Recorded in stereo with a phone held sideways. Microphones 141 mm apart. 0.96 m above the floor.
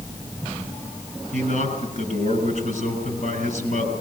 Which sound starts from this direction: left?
A man speaking, at 1.3 s.